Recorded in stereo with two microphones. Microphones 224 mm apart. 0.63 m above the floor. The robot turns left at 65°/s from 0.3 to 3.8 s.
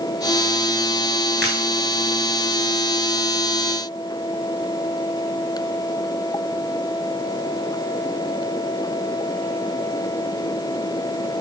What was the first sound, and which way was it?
Breaking glass, 50° right (ahead or behind).